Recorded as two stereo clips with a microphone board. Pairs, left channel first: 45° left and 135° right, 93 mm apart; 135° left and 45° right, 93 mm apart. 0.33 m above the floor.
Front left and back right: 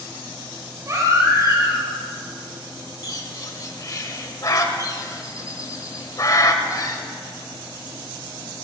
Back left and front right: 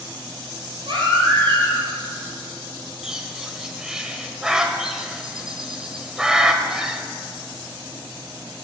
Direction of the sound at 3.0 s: 35° left.